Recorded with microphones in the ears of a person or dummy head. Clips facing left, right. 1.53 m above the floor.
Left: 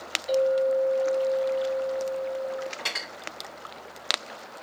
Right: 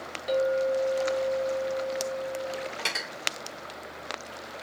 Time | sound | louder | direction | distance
0.3 | a clink | left 3 dB | 60° right (ahead or behind) | 1.8 m
2.8 | cutlery clinking | right 1 dB | 35° right (ahead or behind) | 2.0 m